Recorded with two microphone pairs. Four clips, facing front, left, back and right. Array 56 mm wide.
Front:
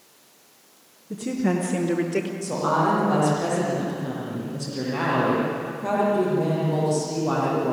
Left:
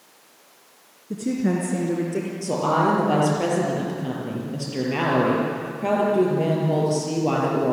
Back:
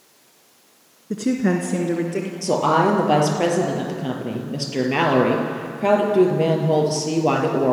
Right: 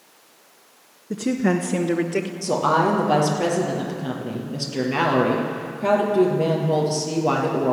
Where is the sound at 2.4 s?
175° left, 4 m.